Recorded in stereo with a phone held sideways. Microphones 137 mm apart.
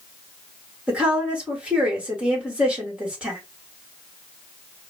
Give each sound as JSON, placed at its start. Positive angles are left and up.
{"t": 0.9, "sound": "a woman speaking", "side_deg": -10, "distance_m": 1.9}